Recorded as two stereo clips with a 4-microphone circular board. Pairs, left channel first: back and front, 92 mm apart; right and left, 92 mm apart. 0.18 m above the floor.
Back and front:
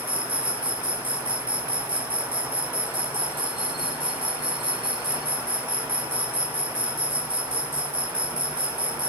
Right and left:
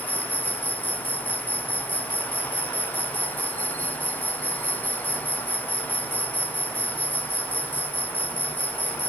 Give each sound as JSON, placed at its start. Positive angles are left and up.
{"t": 0.0, "sound": "an insect", "azimuth_deg": -20}